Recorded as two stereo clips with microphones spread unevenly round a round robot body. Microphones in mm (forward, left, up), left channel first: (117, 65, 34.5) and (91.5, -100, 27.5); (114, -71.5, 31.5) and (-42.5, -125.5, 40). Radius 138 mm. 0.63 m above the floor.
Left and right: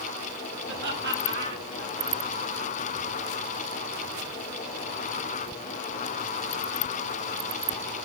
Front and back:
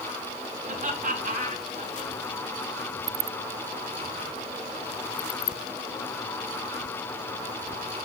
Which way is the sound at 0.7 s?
120° right.